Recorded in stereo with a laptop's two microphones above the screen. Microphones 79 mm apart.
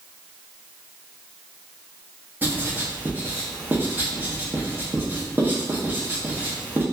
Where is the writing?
25° right (ahead or behind), 0.5 m.